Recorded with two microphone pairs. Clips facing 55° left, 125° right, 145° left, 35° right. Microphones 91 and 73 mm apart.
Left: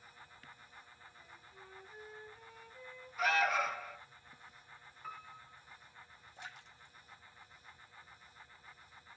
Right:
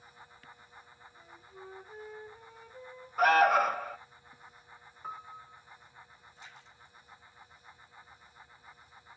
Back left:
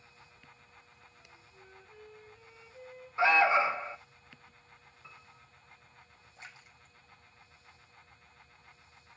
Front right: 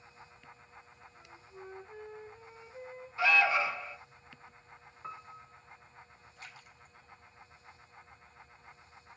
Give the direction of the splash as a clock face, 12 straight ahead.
9 o'clock.